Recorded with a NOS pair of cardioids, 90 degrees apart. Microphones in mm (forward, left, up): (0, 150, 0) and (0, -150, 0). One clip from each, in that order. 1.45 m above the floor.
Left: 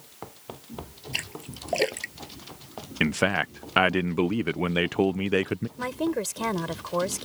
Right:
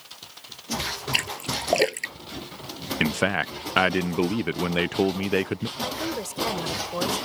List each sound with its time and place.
1.1 s a splash: 70° right
3.0 s a man speaking: 10° right
5.8 s a woman speaking: 25° left